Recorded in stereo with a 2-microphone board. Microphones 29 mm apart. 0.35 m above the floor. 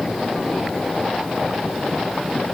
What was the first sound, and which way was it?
Only background noise.